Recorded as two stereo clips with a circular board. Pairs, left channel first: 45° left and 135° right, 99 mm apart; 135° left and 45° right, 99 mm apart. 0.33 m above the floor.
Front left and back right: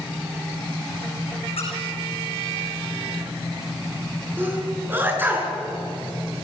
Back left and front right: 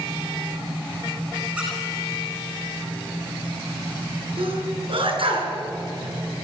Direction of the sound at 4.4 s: 65° right.